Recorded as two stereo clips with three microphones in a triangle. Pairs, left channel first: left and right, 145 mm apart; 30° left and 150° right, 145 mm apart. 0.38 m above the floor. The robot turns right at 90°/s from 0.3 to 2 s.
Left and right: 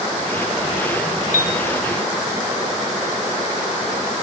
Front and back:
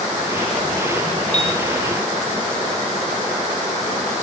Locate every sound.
1.3 s a piano: 70° left, 0.9 m; by 1.6 s 95° left, 0.9 m